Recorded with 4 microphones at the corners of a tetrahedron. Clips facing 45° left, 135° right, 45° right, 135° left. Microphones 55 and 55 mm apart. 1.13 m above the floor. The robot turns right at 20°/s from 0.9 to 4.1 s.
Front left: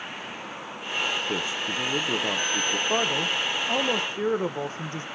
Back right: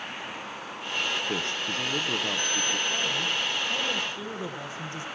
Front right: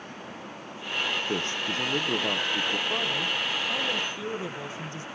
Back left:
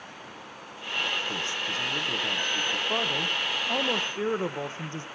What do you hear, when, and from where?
1.3 s a man speaking: 35° right, 0.8 m; by 2.8 s 5° right, 0.8 m
2.9 s a man speaking: 65° left, 1.0 m; by 5.0 s 85° left, 1.0 m